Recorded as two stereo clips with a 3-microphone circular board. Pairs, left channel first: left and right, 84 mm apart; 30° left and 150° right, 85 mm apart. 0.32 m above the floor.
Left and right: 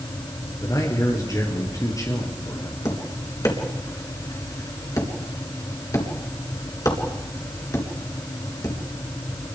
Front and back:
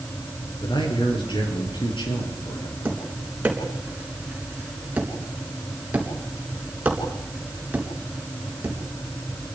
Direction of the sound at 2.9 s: 140° left.